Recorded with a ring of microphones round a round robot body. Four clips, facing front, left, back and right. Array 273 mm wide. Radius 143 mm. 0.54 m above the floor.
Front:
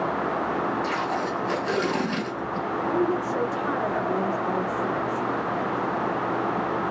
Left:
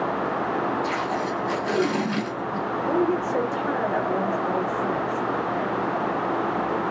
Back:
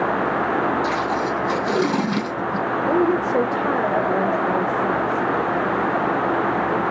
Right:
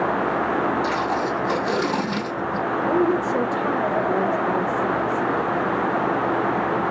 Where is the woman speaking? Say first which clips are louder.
Right 2 dB, back 6 dB; 170° right, 2.0 m.